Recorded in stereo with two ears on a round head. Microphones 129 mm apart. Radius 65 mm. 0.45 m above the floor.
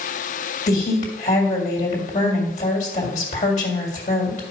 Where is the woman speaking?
50° left (ahead or behind), 2 m.